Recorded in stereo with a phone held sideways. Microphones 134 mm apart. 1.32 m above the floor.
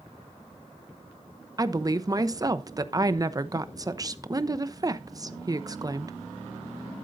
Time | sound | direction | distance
1.6 | a woman speaking | 30° right (ahead or behind) | 0.8 m